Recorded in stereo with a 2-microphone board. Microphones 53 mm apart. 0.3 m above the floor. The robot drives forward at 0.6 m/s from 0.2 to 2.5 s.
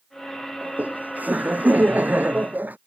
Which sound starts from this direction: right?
Laughter, at 0.6 s.